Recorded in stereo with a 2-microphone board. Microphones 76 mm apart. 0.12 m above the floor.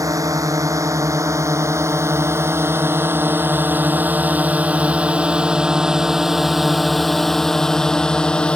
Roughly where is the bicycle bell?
I don't hear a bicycle bell.